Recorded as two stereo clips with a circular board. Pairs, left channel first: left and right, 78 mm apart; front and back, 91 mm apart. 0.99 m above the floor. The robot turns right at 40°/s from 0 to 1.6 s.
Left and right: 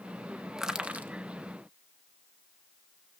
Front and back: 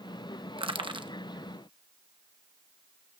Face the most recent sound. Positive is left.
turn(degrees=-135)